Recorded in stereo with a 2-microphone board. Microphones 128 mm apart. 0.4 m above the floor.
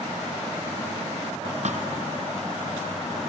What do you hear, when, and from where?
1.6 s a thud: 65° right (ahead or behind), 2 m